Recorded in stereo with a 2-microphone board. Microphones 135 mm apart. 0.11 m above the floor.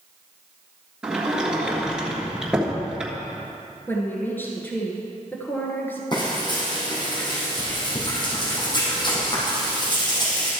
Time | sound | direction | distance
1.0 | a sliding door | 5° right (ahead or behind) | 1.4 m
3.9 | a woman speaking | 15° left (ahead or behind) | 1.2 m
6.1 | frying | 35° left (ahead or behind) | 4 m